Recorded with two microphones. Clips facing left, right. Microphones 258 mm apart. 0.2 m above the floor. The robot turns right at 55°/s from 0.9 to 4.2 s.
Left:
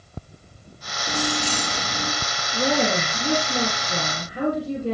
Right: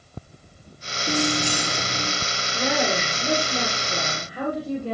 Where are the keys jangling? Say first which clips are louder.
Right 3 dB; 40° right, 2.0 m; by 2.1 s 20° left, 2.0 m.